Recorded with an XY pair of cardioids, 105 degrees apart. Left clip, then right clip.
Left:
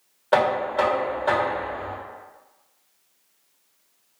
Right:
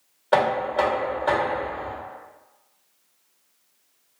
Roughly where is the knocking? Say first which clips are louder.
Even; ahead.